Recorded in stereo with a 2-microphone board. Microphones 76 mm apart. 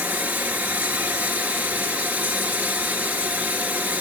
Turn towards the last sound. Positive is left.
turn(degrees=-20)  # may be behind; listen again after turning